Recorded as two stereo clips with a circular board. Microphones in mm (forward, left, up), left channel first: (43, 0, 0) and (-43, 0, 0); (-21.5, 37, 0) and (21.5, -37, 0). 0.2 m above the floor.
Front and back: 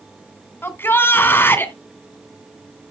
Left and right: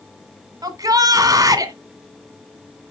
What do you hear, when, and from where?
0.6 s a shout: 50° right, 1.6 m